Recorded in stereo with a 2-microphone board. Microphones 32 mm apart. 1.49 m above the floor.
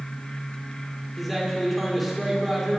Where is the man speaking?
5° right (ahead or behind), 5 m.